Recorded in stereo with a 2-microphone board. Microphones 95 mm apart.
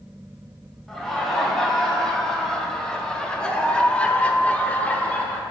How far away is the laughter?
About 2.5 m.